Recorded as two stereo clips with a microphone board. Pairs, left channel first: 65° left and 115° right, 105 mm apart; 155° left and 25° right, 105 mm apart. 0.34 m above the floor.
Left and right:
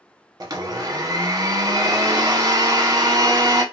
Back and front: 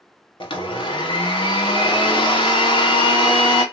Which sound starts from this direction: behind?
A blender, at 0.4 s.